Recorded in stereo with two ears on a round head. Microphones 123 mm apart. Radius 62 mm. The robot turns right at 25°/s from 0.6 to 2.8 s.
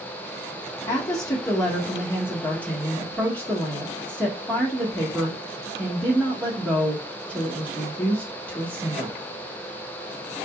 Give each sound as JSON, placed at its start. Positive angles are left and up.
{"t": 0.9, "sound": "a woman speaking", "azimuth_deg": 110, "distance_m": 1.3}